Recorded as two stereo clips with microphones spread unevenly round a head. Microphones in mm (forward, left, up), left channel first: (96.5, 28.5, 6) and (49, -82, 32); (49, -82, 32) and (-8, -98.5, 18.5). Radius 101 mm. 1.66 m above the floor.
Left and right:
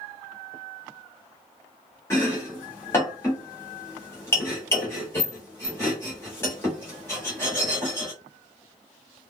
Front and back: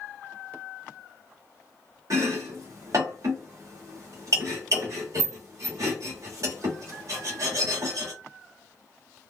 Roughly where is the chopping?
Behind left.